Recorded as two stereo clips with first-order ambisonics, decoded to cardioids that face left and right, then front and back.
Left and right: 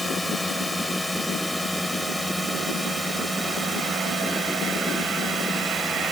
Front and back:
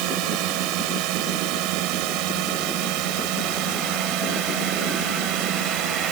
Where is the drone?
Straight behind; by 6.1 s 170° right.